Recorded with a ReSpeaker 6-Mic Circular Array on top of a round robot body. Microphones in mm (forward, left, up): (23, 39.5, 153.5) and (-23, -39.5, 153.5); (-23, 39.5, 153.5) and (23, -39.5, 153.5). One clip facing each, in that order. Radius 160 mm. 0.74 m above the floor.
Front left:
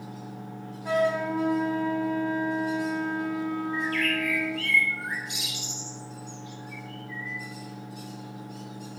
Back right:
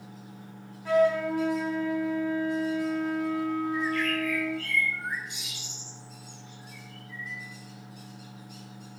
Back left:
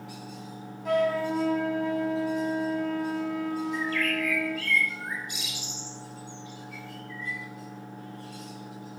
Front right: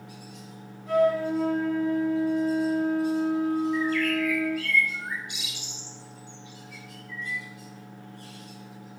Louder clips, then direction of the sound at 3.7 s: Even, front right 4 dB; 75° left.